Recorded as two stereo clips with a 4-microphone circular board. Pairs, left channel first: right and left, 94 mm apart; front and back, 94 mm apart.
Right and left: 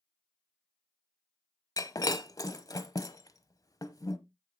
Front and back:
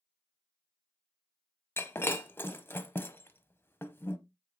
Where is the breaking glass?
60° right, 0.8 m.